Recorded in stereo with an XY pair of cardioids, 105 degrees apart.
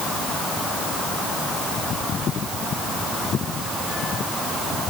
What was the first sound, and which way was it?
Only background noise.